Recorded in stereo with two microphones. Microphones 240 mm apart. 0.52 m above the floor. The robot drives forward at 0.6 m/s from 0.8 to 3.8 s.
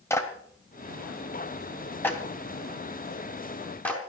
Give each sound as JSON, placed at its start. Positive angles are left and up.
{"t": 0.1, "sound": "a clap", "side_deg": 10, "distance_m": 2.0}